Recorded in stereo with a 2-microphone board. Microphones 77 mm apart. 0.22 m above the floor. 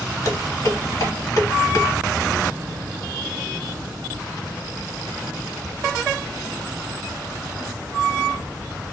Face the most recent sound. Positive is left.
turn(degrees=50)  # may be behind; listen again after turning